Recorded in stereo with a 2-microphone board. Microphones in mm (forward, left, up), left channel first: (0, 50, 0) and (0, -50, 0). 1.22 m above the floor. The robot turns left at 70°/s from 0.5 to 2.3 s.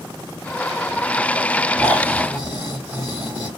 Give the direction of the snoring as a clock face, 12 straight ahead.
6 o'clock.